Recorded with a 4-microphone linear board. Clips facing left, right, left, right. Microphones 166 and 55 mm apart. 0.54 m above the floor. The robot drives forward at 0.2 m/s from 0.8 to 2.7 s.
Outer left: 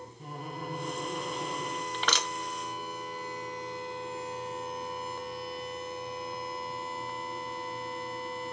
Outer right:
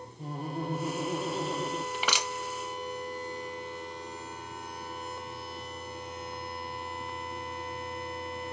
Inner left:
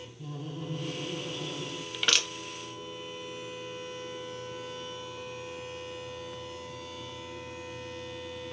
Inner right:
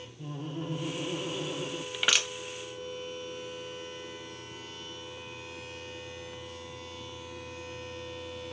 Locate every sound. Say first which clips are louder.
0.2 s laughter: outer right 5 dB, inner right 2 dB; 35° right (ahead or behind), 0.8 m; by 1.8 s 30° right (ahead or behind), 0.8 m
1.9 s crushing: even, even; 10° right (ahead or behind), 0.6 m